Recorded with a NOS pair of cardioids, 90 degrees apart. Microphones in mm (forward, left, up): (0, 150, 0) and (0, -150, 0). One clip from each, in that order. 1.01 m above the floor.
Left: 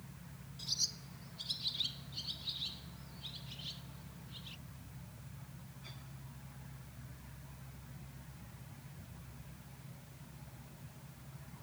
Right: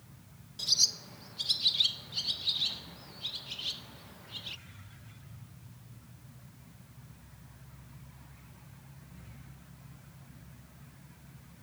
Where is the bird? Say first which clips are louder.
Right 10 dB; 55° right.